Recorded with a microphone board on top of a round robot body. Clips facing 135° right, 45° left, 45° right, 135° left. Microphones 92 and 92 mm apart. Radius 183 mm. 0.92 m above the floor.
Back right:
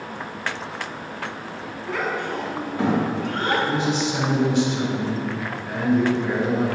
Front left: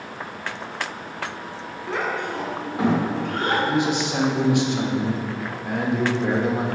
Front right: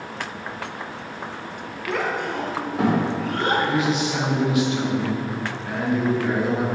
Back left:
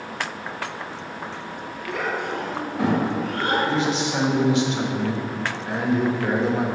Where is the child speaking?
20° right, 1.1 m; by 3.6 s 30° right, 3.5 m.